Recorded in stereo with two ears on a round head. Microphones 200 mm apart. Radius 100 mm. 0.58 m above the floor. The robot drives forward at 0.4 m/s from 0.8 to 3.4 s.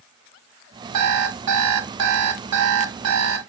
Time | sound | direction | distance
0.9 | an alarm clock | 80° right | 2.0 m